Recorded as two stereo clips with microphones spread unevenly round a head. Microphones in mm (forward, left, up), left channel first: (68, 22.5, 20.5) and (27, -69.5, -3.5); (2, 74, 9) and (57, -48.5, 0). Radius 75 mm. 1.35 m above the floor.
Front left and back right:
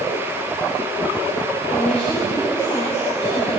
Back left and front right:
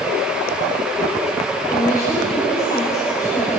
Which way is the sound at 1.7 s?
50° left.